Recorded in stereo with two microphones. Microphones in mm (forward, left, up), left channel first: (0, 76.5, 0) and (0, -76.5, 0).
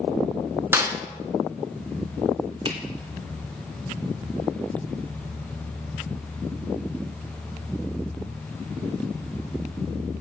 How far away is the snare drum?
About 1.2 m.